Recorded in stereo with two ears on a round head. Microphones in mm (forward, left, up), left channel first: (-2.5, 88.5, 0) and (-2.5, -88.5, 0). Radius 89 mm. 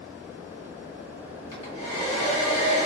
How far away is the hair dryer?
About 1.4 m.